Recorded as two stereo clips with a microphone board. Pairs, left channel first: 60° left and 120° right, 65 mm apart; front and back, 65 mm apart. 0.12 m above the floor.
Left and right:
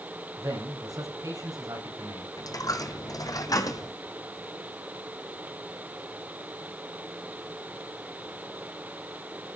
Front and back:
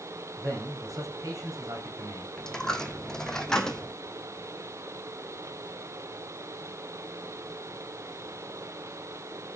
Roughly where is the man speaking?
Behind right.